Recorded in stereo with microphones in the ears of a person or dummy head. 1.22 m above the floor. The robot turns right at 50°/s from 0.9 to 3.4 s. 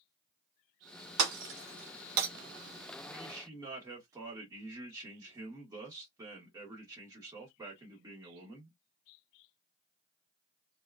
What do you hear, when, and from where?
1.2 s breaking glass: 65° right (ahead or behind), 1.3 m; by 2.3 s 50° right (ahead or behind), 1.3 m
3.0 s a man speaking: centre (ahead or behind), 0.9 m; by 8.8 s 15° right (ahead or behind), 0.9 m